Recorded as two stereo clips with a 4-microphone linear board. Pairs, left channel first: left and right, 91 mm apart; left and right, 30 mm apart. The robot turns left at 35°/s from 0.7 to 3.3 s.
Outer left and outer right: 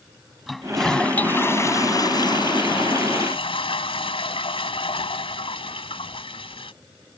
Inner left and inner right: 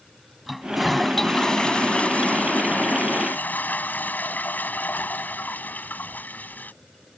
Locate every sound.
0.5 s a toilet flushing: straight behind; by 6.7 s 90° left